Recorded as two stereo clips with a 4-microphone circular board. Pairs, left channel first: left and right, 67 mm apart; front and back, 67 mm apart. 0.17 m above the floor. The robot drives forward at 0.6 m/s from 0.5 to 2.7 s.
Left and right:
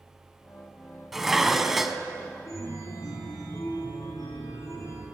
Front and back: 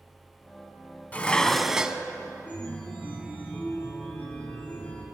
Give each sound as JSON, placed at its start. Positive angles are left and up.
{"t": 1.1, "sound": "dishes clattering", "azimuth_deg": -15, "distance_m": 0.7}
{"t": 2.5, "sound": "a chime", "azimuth_deg": 65, "distance_m": 3.0}